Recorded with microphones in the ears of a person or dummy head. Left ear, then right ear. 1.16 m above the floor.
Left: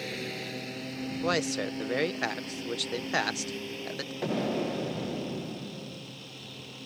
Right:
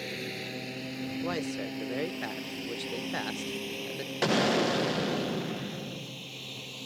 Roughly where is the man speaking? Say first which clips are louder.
Left 7 dB; left.